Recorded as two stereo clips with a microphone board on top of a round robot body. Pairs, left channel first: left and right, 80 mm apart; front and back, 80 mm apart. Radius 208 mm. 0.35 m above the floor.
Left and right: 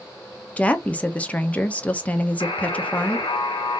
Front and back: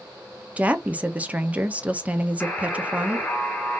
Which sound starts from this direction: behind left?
A woman speaking, at 0.6 s.